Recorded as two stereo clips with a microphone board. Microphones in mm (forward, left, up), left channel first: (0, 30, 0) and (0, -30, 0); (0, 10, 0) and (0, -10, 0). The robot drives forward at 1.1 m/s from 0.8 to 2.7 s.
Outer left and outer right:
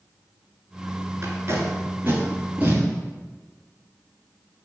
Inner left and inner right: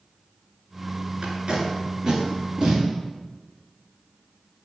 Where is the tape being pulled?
45° right (ahead or behind), 1.4 m; by 2.8 s 25° right (ahead or behind), 2 m.